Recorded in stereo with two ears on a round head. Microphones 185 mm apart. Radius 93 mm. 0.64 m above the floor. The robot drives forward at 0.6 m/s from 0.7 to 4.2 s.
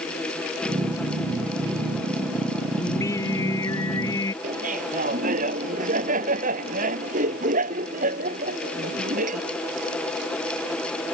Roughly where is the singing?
Centre.